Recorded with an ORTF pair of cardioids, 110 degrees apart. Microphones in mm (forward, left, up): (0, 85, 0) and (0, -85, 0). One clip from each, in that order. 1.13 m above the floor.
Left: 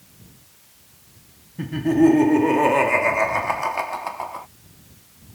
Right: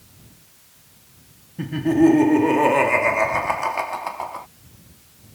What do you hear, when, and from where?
1.6 s laughter: 5° right